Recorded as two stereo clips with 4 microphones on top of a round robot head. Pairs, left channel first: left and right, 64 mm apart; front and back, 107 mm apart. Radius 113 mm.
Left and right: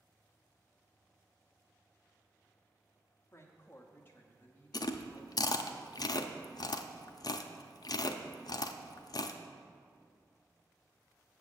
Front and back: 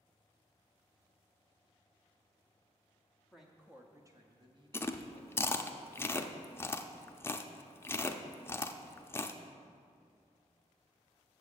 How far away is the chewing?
About 0.5 m.